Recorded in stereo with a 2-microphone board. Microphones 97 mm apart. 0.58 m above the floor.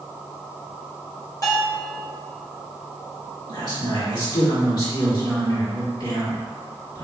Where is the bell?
40° left (ahead or behind), 1.5 m.